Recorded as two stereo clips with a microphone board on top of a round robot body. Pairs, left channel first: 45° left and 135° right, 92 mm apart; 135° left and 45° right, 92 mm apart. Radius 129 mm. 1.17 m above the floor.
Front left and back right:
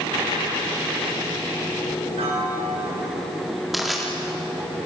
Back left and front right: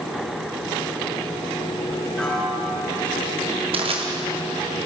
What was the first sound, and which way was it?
A piano, 145° right.